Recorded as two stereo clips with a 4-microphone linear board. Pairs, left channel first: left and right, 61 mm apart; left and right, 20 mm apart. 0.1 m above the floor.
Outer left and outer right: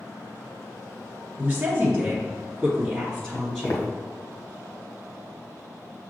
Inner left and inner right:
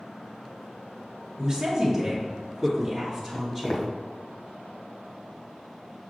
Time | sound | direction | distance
1.4 | a woman speaking | 20° right (ahead or behind) | 1.5 m
3.3 | footsteps | 55° left (ahead or behind) | 1.7 m